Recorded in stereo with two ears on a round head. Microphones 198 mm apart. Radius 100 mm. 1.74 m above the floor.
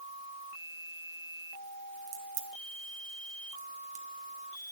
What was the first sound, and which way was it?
A crack, 30° right (ahead or behind).